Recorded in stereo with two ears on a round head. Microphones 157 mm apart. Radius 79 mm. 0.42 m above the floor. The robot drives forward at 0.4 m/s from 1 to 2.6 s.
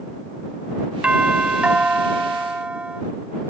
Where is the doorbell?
5° right (ahead or behind).